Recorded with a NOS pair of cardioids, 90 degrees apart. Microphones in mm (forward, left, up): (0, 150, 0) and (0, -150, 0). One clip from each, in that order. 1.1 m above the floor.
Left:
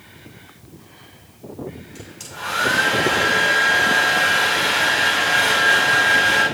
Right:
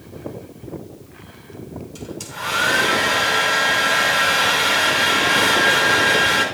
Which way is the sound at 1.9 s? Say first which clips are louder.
Right 6 dB; 25° right.